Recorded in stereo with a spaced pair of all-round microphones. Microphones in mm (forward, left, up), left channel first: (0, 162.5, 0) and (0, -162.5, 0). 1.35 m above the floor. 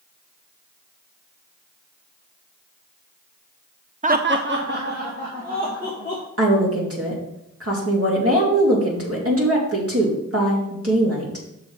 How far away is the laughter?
About 0.5 m.